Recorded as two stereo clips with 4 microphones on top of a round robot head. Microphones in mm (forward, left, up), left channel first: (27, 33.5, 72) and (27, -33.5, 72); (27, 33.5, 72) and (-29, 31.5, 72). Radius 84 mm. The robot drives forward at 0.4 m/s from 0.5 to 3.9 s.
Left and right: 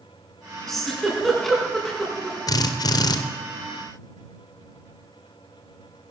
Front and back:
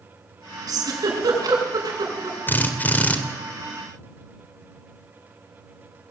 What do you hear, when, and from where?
0.7 s a giggle: 175° left, 5 m
2.5 s a drill: 60° left, 2 m; by 3.2 s 70° left, 1.9 m